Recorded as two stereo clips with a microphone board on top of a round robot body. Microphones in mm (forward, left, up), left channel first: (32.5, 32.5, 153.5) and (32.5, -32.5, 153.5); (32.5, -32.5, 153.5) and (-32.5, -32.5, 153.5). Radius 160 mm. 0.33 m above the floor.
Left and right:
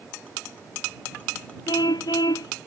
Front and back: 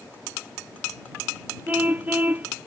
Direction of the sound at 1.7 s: 110° left.